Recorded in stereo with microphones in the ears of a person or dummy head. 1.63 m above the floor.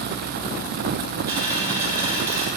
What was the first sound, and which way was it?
A dropped coin, 20° right (ahead or behind).